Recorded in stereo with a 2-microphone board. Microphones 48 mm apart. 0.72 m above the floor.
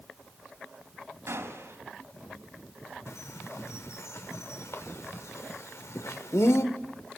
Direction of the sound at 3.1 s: 80° left.